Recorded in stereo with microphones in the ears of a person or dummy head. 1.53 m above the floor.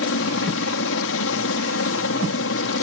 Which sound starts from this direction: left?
A helicopter, at 0.0 s.